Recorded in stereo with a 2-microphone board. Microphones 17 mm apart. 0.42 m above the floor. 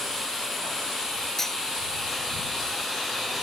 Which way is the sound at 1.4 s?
30° left (ahead or behind).